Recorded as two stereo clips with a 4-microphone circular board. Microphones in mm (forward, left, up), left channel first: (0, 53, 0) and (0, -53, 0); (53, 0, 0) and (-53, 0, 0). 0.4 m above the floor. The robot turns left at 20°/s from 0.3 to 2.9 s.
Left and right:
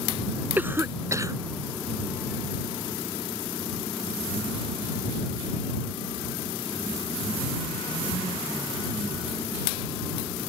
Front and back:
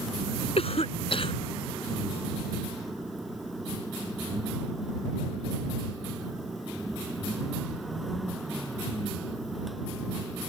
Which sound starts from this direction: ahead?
A cough, at 0.6 s.